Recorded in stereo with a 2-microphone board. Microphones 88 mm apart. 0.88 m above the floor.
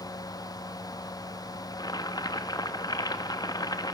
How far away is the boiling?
About 1.7 m.